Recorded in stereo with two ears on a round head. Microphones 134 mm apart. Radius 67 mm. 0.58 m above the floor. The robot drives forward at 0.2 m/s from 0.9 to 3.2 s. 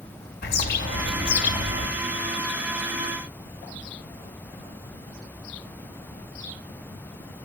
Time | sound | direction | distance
0.4 | a bird | 70° left (ahead or behind) | 1.9 m